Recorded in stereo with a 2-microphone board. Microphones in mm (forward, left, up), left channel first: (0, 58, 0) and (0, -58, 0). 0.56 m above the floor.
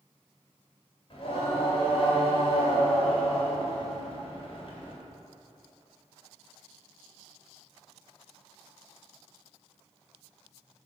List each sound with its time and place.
1.1 s singing: 50° left (ahead or behind), 2.5 m